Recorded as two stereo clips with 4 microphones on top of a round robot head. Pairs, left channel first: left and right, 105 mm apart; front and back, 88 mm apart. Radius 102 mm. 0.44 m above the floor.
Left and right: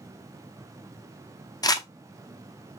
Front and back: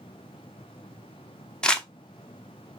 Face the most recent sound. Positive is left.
turn(degrees=75)